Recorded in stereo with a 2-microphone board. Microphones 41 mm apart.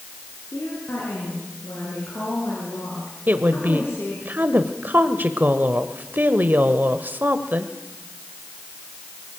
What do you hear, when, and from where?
0.5 s a woman speaking: 75° left (ahead or behind), 7.5 m
3.3 s a woman speaking: 50° right (ahead or behind), 1.3 m